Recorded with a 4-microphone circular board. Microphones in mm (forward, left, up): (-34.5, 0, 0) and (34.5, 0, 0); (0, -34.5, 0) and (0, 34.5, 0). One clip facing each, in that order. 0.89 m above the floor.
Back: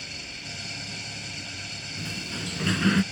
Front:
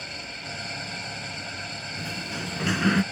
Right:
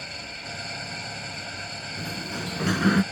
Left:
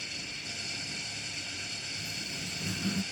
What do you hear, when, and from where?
0.0 s an engine running: 50° right
2.0 s a sliding door: 80° right